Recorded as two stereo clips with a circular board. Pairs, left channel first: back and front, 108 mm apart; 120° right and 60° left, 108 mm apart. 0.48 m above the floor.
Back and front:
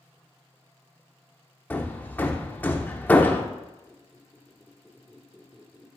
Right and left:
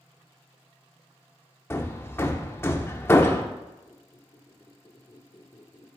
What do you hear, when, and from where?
1.7 s hammering: 135° right, 0.6 m
3.9 s a squeak: 85° right, 1.0 m